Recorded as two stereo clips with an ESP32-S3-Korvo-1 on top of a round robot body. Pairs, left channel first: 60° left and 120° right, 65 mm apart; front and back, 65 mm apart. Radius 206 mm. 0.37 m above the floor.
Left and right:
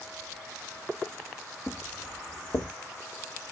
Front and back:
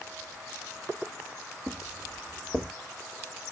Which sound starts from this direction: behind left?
Footsteps, at 1.7 s.